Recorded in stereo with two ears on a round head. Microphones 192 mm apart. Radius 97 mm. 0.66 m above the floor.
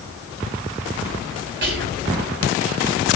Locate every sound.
1.6 s whispering: 60° right (ahead or behind), 3 m